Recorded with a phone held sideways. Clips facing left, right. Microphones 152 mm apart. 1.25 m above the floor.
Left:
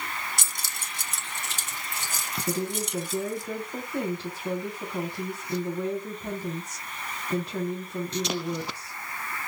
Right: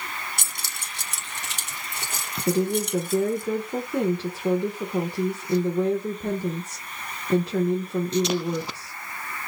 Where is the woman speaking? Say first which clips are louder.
Right 7 dB; 85° right, 1.2 m.